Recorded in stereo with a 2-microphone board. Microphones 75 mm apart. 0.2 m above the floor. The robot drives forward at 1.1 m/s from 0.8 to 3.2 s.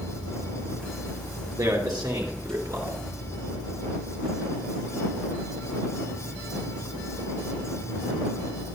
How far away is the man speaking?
About 3 m.